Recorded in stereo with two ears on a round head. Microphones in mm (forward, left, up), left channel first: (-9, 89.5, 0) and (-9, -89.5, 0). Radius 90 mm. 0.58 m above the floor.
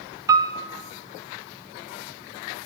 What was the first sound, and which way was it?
A piano, 15° right (ahead or behind).